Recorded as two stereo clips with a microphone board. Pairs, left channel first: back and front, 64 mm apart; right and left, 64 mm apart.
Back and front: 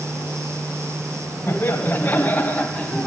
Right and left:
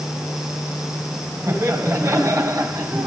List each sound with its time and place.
1.5 s laughter: 135° left, 1.9 m; by 3.1 s 100° left, 1.8 m